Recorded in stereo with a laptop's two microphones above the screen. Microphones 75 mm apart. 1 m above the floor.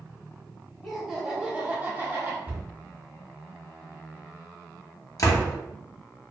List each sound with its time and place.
0.8 s laughter: 5° left (ahead or behind), 0.9 m; by 2.4 s 30° right (ahead or behind), 1.0 m
2.5 s a cupboard door: 20° right (ahead or behind), 0.8 m
5.2 s a door slam: 50° left (ahead or behind), 0.6 m